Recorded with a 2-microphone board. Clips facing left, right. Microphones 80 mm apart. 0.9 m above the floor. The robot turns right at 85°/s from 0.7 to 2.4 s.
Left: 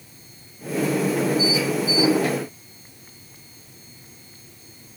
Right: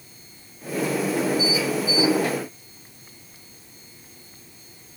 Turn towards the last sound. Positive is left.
No sound to turn to.